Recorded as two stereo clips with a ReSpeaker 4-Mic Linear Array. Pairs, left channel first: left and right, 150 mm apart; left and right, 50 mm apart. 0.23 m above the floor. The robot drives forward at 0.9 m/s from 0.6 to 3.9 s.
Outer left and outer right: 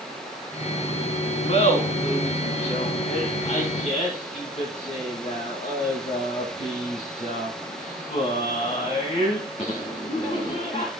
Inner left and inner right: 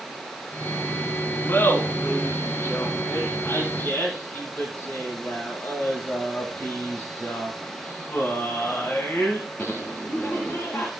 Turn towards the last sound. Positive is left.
turn(degrees=50)  # may be behind; listen again after turning